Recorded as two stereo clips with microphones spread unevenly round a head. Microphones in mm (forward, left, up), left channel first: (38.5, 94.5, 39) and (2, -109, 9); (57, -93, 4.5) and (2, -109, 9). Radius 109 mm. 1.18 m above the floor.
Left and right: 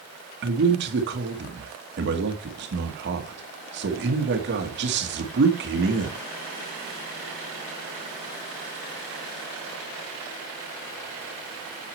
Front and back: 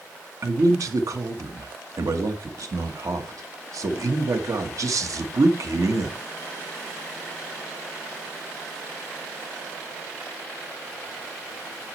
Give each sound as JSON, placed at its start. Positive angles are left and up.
{"t": 0.4, "sound": "a man speaking", "azimuth_deg": -140, "distance_m": 1.4}